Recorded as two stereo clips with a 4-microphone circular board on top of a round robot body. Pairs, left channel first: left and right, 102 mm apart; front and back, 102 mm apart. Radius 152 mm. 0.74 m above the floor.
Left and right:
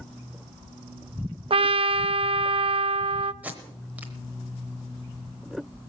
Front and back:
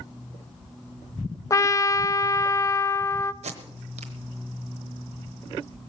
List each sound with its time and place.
1.5 s a trumpet: 60° right, 0.5 m
3.4 s tape being pulled: 165° right, 0.9 m